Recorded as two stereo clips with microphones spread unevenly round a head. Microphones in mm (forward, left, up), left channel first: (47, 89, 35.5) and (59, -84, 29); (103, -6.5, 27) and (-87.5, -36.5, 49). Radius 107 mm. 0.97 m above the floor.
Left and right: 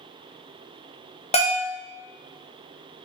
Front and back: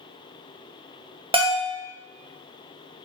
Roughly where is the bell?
Behind left.